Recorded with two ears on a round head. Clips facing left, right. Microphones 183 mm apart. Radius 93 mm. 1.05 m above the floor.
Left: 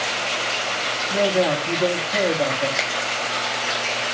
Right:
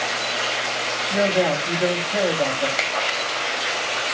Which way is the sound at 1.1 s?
Centre (ahead or behind).